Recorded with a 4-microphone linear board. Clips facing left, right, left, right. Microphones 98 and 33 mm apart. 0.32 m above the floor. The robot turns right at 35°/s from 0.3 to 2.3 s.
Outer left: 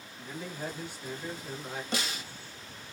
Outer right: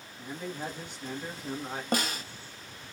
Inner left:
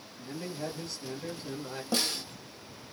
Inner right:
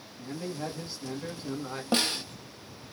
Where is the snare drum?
45° right (ahead or behind), 1.0 m.